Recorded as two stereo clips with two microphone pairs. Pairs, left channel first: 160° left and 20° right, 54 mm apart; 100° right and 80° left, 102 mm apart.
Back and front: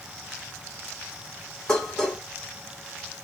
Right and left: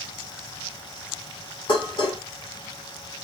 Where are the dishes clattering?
120° right, 1.6 m.